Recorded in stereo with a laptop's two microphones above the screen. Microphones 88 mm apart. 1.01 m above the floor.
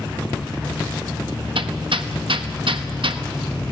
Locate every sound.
1.6 s hammering: 75° right (ahead or behind), 1.1 m